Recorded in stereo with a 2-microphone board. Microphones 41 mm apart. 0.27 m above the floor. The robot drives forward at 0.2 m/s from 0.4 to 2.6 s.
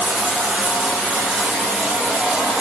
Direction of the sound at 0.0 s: 35° right (ahead or behind).